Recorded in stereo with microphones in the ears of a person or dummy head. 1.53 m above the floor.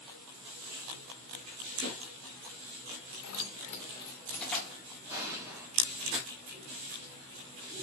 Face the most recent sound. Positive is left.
turn(degrees=-10)  # may be behind; listen again after turning